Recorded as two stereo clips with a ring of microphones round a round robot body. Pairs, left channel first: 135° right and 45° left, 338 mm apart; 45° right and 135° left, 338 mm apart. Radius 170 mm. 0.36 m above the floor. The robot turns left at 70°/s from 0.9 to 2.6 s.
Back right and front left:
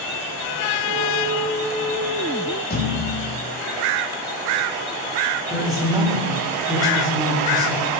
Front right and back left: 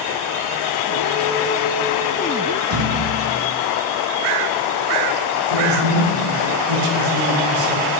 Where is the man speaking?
125° left, 4.5 m.